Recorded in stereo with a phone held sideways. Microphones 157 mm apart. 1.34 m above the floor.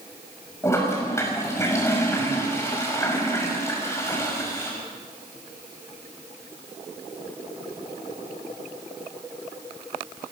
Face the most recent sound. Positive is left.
turn(degrees=15)  # may be behind; listen again after turning